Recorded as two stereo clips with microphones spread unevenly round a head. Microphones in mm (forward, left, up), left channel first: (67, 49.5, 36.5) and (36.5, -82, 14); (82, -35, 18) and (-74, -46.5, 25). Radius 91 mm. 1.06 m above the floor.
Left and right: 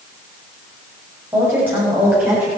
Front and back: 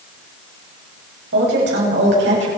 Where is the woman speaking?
Straight behind, 6 m; by 2.5 s 175° left, 7 m.